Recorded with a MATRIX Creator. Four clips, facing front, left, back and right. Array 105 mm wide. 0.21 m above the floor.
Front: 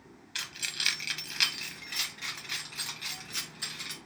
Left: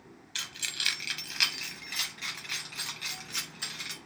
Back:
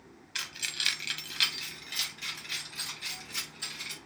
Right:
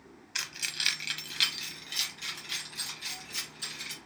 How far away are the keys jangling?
About 0.9 m.